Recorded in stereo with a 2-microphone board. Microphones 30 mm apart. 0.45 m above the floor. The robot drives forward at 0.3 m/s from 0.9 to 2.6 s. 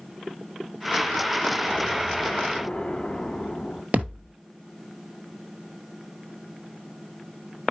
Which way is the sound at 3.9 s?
55° right (ahead or behind).